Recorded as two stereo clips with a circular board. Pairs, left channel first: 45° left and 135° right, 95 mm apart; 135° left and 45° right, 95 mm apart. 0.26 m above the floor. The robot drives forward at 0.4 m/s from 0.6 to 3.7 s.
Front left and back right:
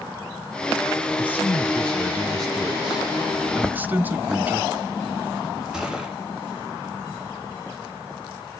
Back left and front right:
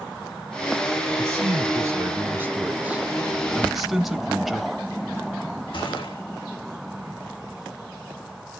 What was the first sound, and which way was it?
A man speaking, 20° right.